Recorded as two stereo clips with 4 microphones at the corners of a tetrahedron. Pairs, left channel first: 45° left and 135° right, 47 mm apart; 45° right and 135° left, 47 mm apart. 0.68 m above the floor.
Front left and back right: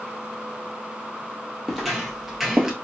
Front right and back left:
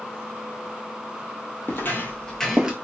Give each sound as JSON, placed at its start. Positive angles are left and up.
{"t": 1.7, "sound": "footsteps", "azimuth_deg": -45, "distance_m": 1.0}